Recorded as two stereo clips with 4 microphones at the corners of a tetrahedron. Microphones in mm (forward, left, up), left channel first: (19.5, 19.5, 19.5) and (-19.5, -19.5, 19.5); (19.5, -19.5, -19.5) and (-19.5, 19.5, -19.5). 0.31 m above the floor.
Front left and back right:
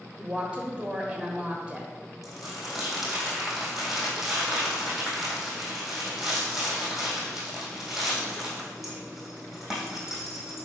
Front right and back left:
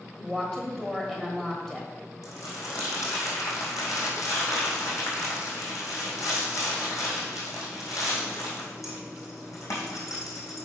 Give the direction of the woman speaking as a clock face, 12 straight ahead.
4 o'clock.